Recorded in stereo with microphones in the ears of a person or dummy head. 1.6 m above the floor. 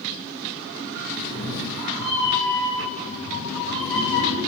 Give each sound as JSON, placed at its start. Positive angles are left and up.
{"t": 1.1, "sound": "a cat meowing", "side_deg": 20, "distance_m": 1.5}